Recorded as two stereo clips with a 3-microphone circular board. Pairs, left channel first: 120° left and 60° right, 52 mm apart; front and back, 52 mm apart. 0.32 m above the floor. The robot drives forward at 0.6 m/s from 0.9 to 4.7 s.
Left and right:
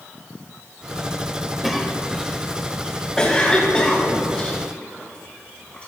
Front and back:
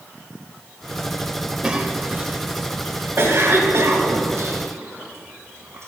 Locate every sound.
1.6 s a cough: 145° right, 1.0 m; by 5.9 s 175° right, 2.5 m